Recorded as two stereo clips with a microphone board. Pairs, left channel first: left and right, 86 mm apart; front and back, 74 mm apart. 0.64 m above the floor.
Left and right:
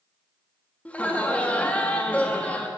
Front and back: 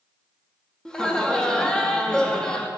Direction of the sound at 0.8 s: 60° left.